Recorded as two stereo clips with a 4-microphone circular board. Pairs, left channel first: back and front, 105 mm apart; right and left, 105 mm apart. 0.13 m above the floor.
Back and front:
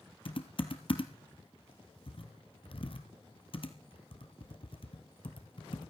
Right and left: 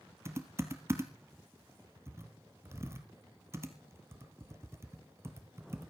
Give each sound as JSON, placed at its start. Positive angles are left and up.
{"t": 0.2, "sound": "typing on a keyboard", "azimuth_deg": 155, "distance_m": 1.8}